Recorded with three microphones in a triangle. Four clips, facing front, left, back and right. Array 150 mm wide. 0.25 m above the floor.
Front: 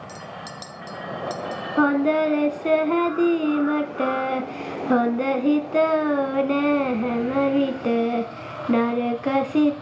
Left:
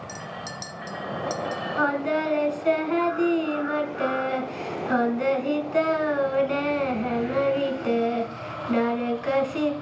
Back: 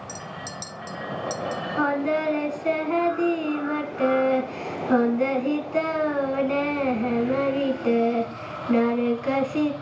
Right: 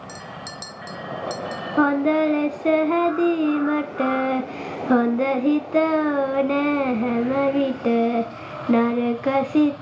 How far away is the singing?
About 1.1 m.